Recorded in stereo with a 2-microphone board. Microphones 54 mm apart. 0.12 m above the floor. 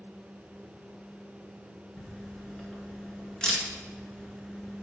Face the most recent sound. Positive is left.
turn(degrees=15)  # may be behind; listen again after turning